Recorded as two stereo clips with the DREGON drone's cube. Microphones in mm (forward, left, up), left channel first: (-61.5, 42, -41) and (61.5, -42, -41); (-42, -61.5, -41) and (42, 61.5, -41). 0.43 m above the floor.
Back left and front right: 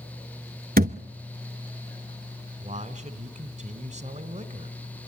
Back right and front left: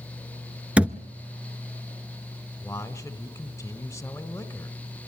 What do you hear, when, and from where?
0.8 s a thud: 25° right, 0.7 m
2.6 s a man speaking: 55° right, 1.4 m